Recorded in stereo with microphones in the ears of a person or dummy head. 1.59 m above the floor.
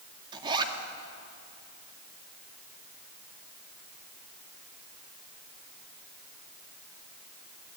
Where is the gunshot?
I don't hear a gunshot.